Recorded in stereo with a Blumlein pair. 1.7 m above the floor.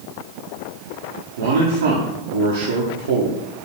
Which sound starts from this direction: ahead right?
A man speaking, at 1.4 s.